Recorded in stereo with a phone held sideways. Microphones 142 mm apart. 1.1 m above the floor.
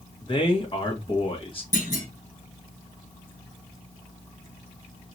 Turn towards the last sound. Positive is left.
turn(degrees=75)  # may be behind; listen again after turning